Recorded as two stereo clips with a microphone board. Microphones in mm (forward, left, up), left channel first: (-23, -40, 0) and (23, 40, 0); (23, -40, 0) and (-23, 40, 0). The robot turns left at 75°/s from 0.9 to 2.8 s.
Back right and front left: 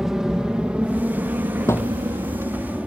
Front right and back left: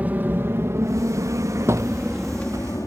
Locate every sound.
0.0 s an aircraft: 135° left; by 2.9 s 15° right
1.7 s a thud: straight behind; by 2.0 s 160° left